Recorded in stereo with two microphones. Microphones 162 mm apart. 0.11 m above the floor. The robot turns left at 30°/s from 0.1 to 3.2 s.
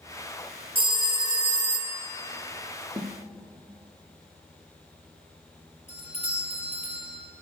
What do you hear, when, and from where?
0.8 s a phone ringing: 100° right, 1.1 m; by 2.0 s 135° right, 1.1 m
3.0 s a snare drum: 25° right (ahead or behind), 1.4 m; by 3.1 s 30° right (ahead or behind), 1.4 m
5.9 s a doorbell: 45° left (ahead or behind), 3 m